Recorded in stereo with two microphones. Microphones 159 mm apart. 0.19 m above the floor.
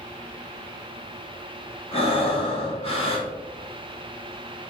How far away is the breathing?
About 1.2 m.